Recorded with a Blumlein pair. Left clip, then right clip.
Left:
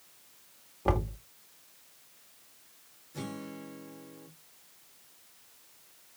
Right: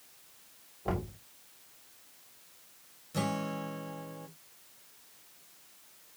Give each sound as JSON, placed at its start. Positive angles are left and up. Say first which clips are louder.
{"t": 0.8, "sound": "knocking", "louder": "left 5 dB", "azimuth_deg": 60, "distance_m": 1.4}
{"t": 3.1, "sound": "a guitar", "louder": "right 7 dB", "azimuth_deg": -60, "distance_m": 1.3}